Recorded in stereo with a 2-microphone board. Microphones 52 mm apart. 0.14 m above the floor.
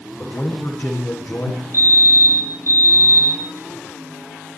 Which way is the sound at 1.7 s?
55° right (ahead or behind).